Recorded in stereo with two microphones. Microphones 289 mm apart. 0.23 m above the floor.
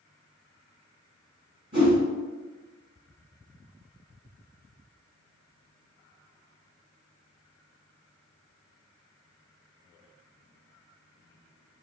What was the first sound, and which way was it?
A whoosh, 40° right (ahead or behind).